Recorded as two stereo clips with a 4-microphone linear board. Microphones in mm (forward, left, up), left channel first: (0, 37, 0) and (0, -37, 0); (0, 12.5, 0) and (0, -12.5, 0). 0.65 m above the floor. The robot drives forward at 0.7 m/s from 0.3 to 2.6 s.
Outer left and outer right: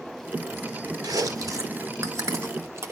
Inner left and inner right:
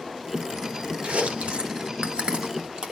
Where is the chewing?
60° right (ahead or behind), 1.8 m; by 2.9 s 40° right (ahead or behind), 2.5 m.